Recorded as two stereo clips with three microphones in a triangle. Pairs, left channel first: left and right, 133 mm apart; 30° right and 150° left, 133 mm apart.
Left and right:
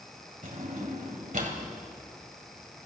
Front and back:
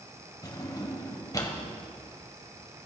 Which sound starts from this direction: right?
A drawer, at 0.4 s.